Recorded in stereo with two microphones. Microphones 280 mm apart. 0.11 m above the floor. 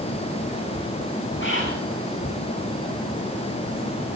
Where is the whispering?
45° left (ahead or behind), 4.5 m.